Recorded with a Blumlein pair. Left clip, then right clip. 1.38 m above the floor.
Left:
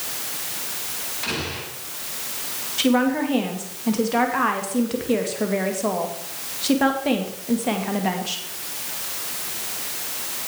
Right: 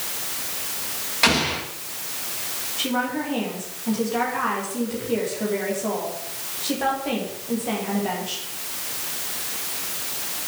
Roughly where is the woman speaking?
Left.